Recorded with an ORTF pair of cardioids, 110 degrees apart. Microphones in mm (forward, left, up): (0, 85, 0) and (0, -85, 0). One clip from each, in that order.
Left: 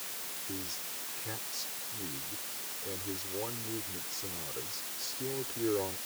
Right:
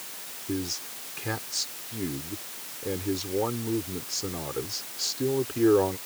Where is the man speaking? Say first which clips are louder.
Right 11 dB; 60° right.